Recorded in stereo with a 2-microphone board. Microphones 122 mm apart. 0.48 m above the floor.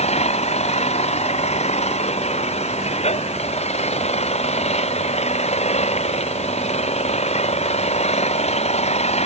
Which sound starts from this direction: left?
An engine running, at 0.0 s.